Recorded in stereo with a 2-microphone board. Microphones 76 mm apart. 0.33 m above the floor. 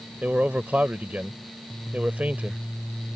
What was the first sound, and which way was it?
A man speaking, 20° right (ahead or behind).